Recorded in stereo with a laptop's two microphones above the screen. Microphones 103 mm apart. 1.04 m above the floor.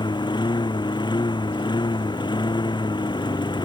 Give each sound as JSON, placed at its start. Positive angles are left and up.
{"t": 0.0, "sound": "a lawn mower", "side_deg": 45}